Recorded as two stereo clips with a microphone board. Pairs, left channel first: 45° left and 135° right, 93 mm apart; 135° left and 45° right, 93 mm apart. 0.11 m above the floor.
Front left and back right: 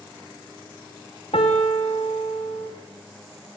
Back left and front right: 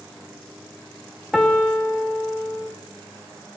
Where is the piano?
45° left, 5.5 m.